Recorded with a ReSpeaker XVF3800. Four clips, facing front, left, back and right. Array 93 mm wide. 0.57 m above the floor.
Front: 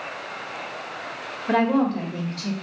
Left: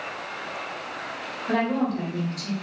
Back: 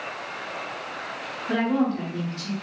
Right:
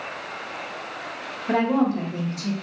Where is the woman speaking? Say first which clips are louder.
Right 3 dB, front 3 dB; 20° right, 1.6 m.